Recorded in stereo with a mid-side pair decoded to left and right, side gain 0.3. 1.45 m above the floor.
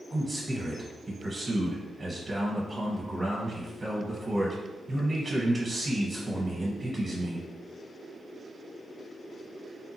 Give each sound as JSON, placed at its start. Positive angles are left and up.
{"t": 0.1, "sound": "a man speaking", "azimuth_deg": -35, "distance_m": 1.2}